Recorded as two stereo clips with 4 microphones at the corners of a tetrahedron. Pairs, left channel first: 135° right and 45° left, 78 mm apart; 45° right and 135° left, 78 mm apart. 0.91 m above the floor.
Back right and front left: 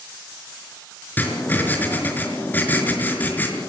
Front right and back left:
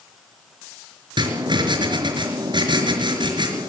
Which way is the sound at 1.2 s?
155° left.